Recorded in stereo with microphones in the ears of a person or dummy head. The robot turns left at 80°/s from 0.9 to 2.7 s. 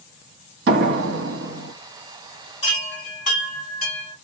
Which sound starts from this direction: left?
A chime, at 2.6 s.